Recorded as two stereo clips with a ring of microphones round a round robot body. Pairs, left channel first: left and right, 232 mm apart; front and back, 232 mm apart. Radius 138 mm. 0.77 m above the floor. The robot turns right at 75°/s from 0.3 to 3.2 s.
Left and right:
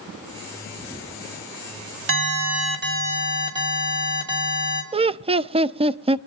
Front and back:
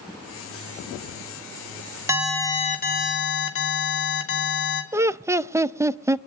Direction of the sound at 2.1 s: 105° right.